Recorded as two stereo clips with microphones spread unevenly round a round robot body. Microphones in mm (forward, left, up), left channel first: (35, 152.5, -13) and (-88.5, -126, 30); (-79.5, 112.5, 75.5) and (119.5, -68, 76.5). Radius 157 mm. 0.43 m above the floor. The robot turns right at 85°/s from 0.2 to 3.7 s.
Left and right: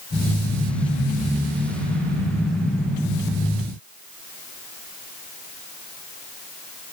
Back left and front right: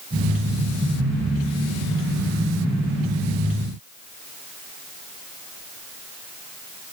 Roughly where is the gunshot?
No gunshot in this recording.